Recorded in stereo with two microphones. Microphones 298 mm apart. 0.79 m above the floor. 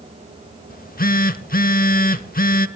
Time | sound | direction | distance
0.7 | a phone buzzing | 30° left (ahead or behind) | 0.7 m